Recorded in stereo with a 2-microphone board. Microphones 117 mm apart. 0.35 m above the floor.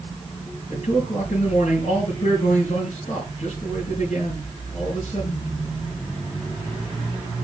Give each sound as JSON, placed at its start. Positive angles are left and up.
{"t": 0.7, "sound": "a man speaking", "side_deg": 70, "distance_m": 5.0}